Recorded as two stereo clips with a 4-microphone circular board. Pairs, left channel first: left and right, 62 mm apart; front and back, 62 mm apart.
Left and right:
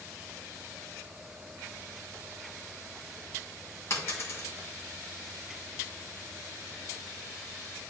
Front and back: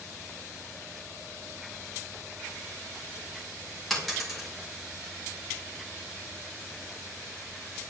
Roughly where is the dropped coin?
Left.